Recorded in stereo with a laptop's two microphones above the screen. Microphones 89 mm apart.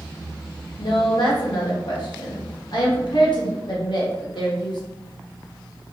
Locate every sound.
0.8 s a woman speaking: 55° left (ahead or behind), 1.0 m